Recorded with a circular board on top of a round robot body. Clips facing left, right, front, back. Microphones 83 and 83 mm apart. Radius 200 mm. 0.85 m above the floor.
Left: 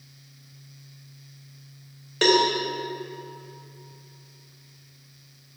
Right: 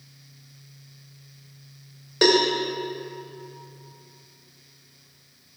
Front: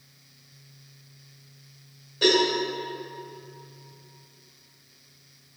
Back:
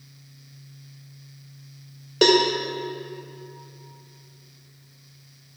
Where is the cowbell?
170° right, 2.5 m.